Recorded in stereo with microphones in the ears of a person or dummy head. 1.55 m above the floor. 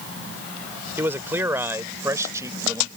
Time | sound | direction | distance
1.0 | a man speaking | 15° right (ahead or behind) | ?